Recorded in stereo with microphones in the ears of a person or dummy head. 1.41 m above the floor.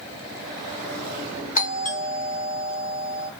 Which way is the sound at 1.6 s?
40° left (ahead or behind).